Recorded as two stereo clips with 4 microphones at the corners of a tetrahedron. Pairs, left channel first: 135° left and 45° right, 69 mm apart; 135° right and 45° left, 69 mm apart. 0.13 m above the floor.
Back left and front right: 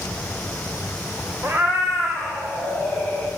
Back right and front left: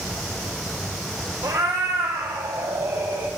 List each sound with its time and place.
1.4 s a cat meowing: 25° left, 1.2 m; by 3.3 s 60° left, 3 m